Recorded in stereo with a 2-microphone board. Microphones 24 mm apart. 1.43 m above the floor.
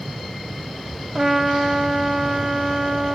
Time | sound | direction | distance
1.1 | a trumpet | centre (ahead or behind) | 1.3 m